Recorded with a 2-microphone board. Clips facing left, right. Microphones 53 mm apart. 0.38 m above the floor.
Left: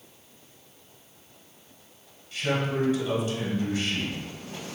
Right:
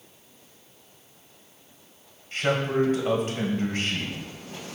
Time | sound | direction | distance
2.3 | a man speaking | 50° right (ahead or behind) | 2 m